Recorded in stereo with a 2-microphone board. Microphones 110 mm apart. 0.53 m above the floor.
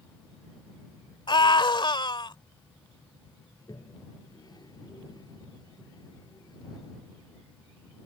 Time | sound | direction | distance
1.3 | a scream | 45° left (ahead or behind) | ?
3.5 | a toilet flushing | 40° left (ahead or behind) | ?